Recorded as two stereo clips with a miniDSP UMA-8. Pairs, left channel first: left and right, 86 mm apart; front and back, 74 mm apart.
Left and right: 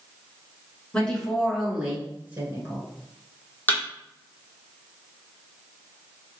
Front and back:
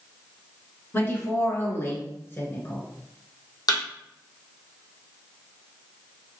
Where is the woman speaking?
25° left, 1.2 m; by 2.8 s 45° right, 1.5 m.